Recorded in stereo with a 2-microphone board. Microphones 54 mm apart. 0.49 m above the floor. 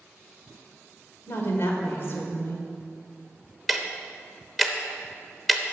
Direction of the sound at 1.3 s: 50° left (ahead or behind).